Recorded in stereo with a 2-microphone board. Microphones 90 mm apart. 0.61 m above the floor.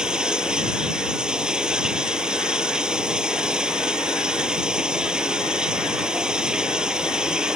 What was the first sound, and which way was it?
Running water, 10° right (ahead or behind).